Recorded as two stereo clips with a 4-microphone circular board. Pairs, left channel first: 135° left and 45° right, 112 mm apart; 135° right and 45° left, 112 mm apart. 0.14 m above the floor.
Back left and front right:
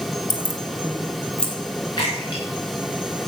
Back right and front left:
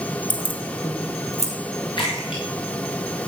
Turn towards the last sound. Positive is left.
turn(degrees=-175)